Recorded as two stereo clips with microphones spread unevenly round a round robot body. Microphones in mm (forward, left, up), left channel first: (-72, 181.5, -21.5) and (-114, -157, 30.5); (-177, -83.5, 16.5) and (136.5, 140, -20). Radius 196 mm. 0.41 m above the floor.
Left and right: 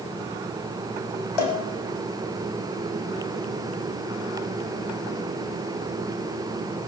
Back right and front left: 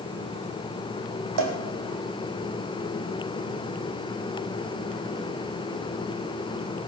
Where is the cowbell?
75° left, 3.5 m.